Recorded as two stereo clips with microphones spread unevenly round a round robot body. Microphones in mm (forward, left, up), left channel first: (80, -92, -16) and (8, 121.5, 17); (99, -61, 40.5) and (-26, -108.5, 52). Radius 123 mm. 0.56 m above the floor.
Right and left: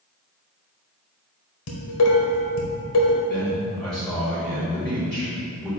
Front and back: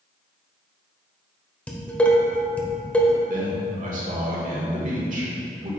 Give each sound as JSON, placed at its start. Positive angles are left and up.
{"t": 1.7, "sound": "dishes clattering", "azimuth_deg": -60, "distance_m": 1.4}
{"t": 3.3, "sound": "a man speaking", "azimuth_deg": -155, "distance_m": 1.9}